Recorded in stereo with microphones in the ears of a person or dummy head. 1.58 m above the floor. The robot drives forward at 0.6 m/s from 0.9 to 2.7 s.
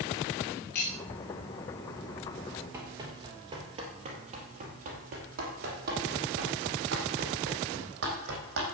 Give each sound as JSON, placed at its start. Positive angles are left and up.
{"t": 0.8, "sound": "cutlery clinking", "side_deg": 55, "distance_m": 3.0}
{"t": 2.7, "sound": "running footsteps", "side_deg": -20, "distance_m": 2.5}